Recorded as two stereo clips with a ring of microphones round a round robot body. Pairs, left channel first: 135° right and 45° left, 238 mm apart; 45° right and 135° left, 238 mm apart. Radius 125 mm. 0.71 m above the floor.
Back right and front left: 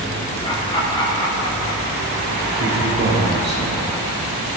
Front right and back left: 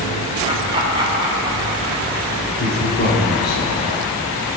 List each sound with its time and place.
0.4 s laughter: straight behind, 1.1 m
2.6 s a man speaking: straight ahead, 1.9 m